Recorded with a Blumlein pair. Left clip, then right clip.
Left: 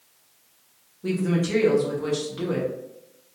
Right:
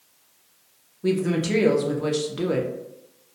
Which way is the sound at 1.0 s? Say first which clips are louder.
Right 3 dB; 15° right.